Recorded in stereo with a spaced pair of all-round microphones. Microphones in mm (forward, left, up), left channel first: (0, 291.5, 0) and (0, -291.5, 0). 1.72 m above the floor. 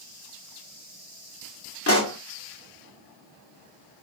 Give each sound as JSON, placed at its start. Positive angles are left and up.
{"t": 1.9, "sound": "a pop", "side_deg": 25, "distance_m": 0.9}